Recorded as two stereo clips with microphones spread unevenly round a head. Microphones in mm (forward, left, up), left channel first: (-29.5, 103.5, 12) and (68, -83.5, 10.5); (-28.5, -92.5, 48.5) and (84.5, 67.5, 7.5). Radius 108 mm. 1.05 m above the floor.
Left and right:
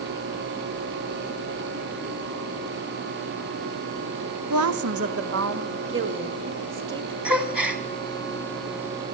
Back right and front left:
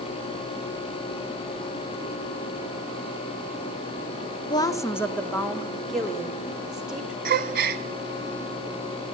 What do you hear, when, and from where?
4.5 s a woman speaking: 55° right, 1.3 m; by 7.2 s 30° right, 3.5 m
7.2 s a gasp: 20° left, 1.7 m